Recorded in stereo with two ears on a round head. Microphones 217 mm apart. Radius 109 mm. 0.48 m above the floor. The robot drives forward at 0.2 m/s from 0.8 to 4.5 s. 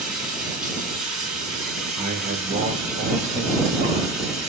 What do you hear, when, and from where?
0.0 s running water: 5° right (ahead or behind), 5 m
2.0 s a man speaking: 45° right (ahead or behind), 1.8 m; by 4.3 s 40° right (ahead or behind), 2 m